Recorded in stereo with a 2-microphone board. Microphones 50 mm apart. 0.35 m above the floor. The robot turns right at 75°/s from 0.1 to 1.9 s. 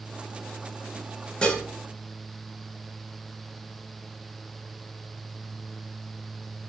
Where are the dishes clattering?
20° left (ahead or behind), 0.6 m.